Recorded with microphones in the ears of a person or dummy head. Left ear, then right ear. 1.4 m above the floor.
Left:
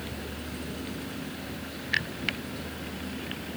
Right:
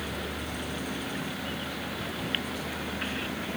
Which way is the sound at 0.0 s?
10° right (ahead or behind).